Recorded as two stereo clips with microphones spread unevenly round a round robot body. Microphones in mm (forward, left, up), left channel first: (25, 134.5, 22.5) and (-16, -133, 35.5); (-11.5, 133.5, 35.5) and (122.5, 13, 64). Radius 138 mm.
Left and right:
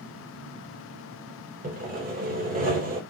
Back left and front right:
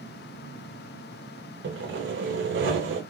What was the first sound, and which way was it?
Sawing, 40° right.